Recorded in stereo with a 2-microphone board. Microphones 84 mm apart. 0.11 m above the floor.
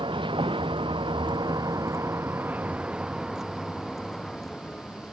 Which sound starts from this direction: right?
A vehicle, at 0.0 s.